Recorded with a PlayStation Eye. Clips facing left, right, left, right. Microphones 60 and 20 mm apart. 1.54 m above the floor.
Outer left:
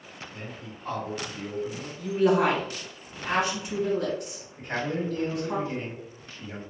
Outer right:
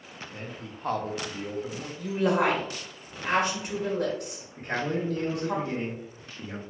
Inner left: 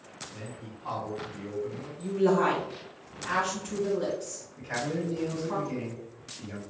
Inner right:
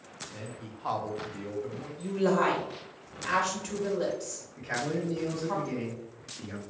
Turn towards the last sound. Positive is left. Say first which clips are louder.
# outer right 1 dB, even
turn(degrees=-60)  # may be behind; listen again after turning